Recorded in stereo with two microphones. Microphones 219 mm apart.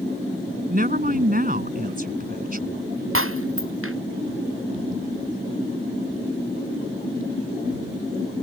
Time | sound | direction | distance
0.7 | a woman speaking | 45° right (ahead or behind) | ?
3.1 | breaking glass | 80° right | ?